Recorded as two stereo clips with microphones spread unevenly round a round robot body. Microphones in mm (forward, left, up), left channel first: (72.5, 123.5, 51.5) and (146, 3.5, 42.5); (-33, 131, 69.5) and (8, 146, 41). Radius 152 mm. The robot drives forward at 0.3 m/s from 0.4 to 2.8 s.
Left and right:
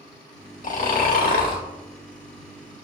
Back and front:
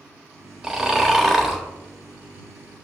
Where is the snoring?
90° left, 0.9 m; by 1.6 s 110° left, 1.0 m.